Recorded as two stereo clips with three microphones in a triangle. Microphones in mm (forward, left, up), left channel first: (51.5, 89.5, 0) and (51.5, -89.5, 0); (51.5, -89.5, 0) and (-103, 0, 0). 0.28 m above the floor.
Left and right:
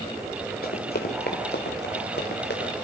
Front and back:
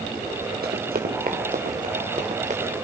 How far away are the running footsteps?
About 3 m.